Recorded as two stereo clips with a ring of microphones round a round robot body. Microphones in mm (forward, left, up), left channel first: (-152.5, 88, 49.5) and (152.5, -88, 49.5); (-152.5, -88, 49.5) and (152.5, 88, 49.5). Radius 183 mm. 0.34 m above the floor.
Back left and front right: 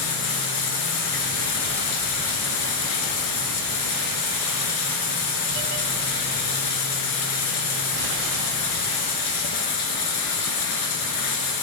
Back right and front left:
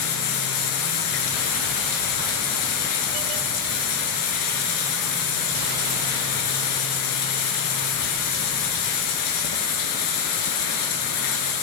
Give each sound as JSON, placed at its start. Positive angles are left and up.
{"t": 0.0, "sound": "running water", "azimuth_deg": 175, "distance_m": 1.1}